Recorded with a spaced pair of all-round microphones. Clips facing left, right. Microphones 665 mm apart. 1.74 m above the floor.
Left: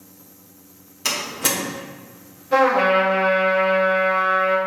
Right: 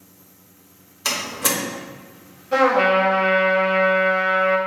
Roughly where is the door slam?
Left.